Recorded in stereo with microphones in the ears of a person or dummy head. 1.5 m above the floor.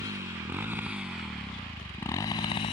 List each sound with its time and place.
0.0 s a motorcycle: 25° right (ahead or behind); by 2.7 s 25° left (ahead or behind)